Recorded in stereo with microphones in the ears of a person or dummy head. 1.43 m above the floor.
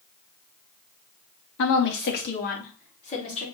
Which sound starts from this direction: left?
A woman speaking, at 1.6 s.